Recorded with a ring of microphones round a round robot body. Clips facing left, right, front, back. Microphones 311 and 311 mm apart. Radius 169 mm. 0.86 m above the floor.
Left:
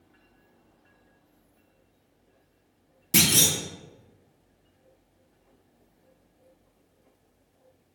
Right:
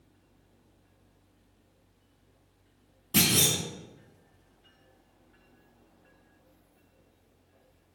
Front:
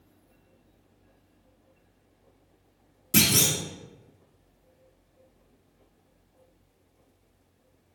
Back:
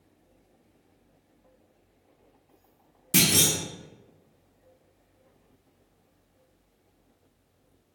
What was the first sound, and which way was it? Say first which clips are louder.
A clunk: left 1 dB, even; 95° left.